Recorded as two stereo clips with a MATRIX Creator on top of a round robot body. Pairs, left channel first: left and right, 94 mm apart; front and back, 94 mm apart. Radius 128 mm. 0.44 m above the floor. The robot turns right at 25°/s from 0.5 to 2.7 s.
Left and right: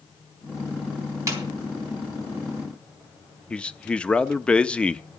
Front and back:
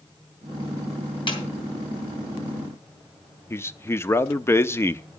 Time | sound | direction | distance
1.3 | a snare drum | 35° right | 3.5 m
3.5 | a man speaking | 25° left | 0.9 m